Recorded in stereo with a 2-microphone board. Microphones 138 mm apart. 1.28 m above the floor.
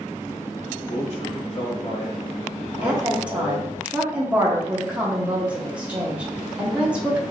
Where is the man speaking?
50° left (ahead or behind), 1.0 m.